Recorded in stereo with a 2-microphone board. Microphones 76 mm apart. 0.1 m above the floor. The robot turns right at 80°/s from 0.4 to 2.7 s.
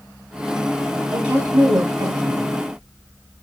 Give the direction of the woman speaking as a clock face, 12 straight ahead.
6 o'clock.